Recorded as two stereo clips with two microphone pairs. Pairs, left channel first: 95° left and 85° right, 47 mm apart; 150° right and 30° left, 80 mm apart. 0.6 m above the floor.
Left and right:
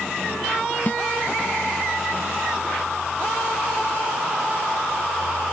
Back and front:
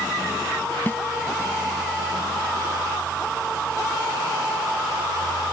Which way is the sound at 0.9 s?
145° left.